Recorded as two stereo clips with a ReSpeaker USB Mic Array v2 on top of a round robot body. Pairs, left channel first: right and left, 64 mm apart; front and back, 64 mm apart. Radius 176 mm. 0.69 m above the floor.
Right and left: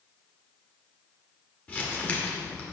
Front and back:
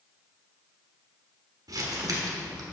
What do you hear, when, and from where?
1.7 s crumpling: 155° right, 1.2 m